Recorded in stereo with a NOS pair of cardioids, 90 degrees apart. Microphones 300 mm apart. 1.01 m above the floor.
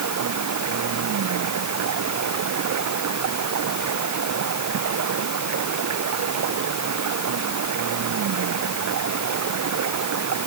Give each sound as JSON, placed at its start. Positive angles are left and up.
{"t": 0.0, "sound": "running water", "azimuth_deg": -65}